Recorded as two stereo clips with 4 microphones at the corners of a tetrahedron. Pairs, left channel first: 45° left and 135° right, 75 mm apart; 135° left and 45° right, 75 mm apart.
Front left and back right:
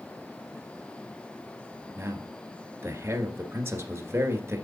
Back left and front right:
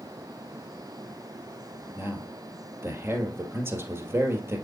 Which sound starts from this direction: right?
A man speaking, at 1.9 s.